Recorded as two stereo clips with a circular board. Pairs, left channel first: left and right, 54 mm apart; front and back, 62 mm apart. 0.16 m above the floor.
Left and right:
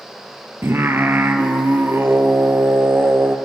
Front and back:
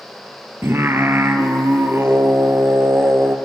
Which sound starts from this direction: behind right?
Singing, at 0.6 s.